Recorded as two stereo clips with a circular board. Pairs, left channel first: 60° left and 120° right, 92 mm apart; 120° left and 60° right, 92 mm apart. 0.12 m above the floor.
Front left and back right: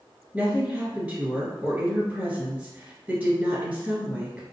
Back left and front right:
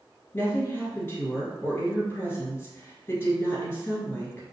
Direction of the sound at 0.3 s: 175° left.